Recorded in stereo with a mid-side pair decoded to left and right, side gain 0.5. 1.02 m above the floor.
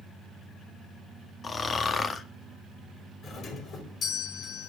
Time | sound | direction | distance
1.4 | snoring | 35° left | 1.5 m
3.2 | a doorbell | 50° left | 3.5 m